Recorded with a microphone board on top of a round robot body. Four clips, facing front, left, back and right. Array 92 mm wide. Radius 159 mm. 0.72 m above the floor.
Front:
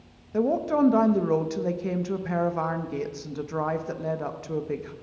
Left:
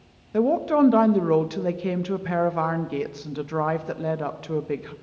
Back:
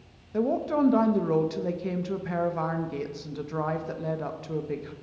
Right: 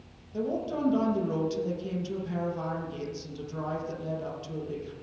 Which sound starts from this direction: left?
A woman speaking, at 0.3 s.